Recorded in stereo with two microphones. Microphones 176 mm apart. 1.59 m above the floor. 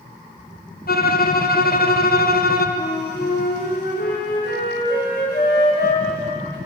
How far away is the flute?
About 3.5 m.